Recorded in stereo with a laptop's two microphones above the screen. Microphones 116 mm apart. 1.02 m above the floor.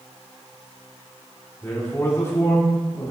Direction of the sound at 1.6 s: 25° left (ahead or behind).